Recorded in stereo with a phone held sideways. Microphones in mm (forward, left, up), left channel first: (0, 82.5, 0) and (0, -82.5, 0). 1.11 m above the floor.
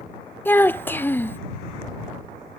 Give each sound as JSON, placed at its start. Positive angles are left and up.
{"t": 0.5, "sound": "a child speaking", "side_deg": 10}